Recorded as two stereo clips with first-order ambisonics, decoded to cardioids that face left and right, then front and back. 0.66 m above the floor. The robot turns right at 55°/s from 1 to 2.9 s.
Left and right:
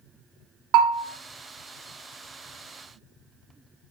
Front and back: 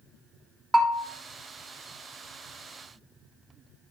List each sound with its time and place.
0.7 s a bell: 100° right, 0.6 m